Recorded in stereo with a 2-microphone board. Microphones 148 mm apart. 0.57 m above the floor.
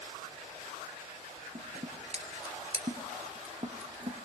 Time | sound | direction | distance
1.6 | scissors | 45° right (ahead or behind) | 2.5 m